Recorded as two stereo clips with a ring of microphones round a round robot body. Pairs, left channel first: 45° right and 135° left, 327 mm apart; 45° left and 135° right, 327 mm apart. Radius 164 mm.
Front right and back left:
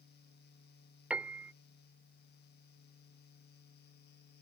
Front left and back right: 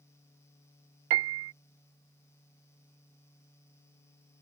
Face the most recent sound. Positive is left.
turn(degrees=-140)